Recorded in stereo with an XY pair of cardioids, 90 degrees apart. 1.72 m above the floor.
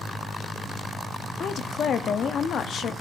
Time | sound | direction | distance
1.4 | a woman speaking | 65° left | 0.6 m